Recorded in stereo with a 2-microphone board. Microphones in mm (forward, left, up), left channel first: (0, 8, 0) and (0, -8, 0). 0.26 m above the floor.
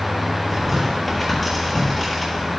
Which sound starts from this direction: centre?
Tearing paper, at 0.5 s.